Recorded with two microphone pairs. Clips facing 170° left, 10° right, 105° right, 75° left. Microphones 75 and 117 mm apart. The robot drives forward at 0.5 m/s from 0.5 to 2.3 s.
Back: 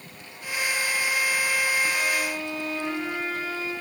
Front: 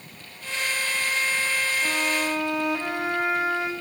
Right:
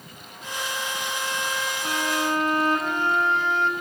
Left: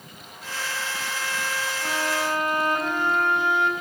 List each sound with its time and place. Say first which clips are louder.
1.8 s a violin: front 1 dB, right 1 dB; straight ahead, 5.5 m